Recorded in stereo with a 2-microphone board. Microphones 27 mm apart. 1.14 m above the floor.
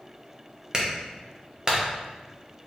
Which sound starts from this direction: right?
A clap, at 0.7 s.